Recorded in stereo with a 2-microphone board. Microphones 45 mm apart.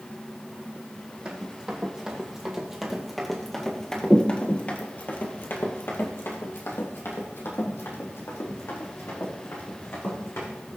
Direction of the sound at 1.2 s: 25° right (ahead or behind).